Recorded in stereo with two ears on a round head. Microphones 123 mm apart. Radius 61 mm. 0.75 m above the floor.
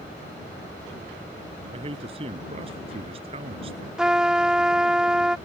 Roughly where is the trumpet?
Centre.